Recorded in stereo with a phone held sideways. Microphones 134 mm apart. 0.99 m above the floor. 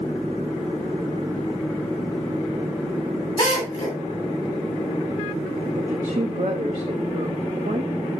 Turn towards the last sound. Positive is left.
turn(degrees=-65)  # may be behind; listen again after turning